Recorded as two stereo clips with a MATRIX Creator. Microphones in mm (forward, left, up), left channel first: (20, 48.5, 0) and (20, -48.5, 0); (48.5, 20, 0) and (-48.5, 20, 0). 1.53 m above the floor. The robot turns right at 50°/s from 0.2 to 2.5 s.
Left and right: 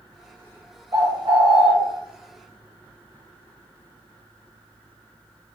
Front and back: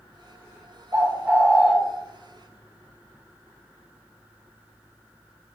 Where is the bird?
130° right, 0.6 m; by 1.7 s 90° right, 0.6 m.